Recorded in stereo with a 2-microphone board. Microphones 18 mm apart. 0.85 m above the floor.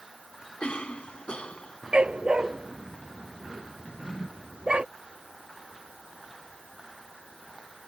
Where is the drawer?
75° left (ahead or behind).